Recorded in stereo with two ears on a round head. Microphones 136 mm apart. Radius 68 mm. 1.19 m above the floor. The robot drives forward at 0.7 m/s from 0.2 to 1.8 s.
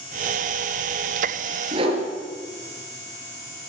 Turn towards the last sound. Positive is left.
turn(degrees=-40)  # may be behind; listen again after turning